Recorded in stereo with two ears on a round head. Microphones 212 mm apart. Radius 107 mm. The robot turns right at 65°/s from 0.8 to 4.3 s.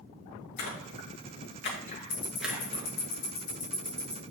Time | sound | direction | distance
0.6 | a splash | 75° left (ahead or behind) | 2 m
2.1 | ticking | 50° left (ahead or behind) | 4 m